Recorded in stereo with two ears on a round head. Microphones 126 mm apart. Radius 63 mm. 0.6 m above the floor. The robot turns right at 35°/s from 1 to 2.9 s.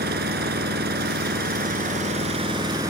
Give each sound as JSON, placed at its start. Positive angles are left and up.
{"t": 0.0, "sound": "an engine running", "azimuth_deg": -90}